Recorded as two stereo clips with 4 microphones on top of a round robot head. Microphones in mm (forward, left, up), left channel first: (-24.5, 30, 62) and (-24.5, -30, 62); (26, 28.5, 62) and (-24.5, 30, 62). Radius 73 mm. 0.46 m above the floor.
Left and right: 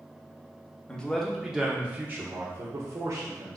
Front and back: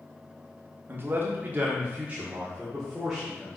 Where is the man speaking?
160° left, 1.2 m; by 3.6 s 100° right, 1.9 m.